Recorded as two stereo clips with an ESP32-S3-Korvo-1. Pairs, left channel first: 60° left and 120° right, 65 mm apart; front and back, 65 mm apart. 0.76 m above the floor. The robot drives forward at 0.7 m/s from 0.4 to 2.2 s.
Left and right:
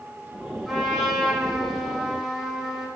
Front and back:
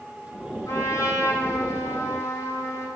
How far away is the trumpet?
About 5.5 m.